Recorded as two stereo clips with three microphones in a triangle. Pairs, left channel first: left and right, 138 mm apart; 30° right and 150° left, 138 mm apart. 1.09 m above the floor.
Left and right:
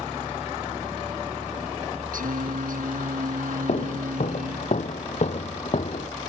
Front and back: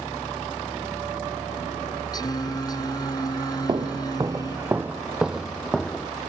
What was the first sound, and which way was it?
Singing, 90° right.